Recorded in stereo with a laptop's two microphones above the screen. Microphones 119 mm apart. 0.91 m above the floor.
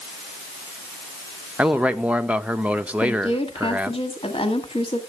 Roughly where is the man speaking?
Centre.